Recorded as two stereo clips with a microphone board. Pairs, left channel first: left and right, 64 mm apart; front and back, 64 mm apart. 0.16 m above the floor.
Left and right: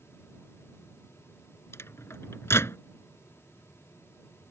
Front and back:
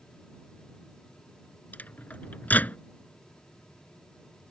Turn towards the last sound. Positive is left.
turn(degrees=55)